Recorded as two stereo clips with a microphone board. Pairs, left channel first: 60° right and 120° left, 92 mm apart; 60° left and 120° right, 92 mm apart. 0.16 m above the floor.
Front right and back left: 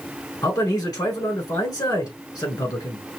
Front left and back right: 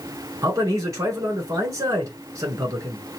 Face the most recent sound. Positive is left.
turn(degrees=-80)